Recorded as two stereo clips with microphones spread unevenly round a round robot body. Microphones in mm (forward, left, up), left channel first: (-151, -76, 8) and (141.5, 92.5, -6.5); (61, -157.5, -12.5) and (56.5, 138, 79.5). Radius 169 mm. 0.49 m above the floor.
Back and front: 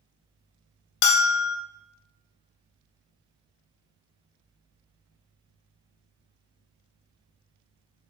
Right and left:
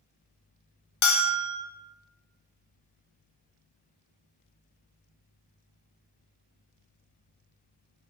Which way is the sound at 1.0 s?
135° right.